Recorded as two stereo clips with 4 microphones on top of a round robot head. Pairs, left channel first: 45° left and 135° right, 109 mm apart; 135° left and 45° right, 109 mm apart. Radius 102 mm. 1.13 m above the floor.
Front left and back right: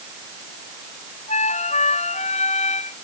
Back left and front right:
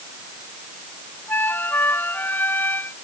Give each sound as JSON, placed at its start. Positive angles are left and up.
{"t": 1.3, "sound": "a flute", "azimuth_deg": 65}